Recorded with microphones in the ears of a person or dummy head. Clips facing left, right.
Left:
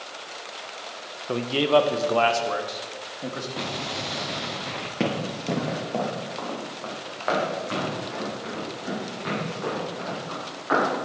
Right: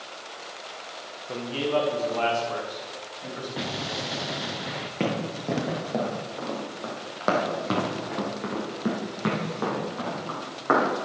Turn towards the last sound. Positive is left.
turn(degrees=-60)  # may be behind; listen again after turning